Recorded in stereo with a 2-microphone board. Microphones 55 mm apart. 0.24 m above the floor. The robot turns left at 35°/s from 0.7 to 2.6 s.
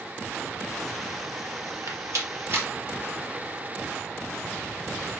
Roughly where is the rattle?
Right.